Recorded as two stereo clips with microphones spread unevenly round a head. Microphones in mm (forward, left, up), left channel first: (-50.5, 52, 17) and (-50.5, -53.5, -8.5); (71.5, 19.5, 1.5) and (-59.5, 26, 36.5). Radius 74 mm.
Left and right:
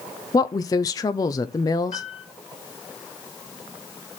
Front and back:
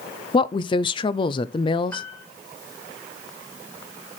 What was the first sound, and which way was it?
A woman speaking, 60° left.